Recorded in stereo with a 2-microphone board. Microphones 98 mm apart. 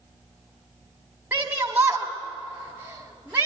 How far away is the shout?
About 1.4 m.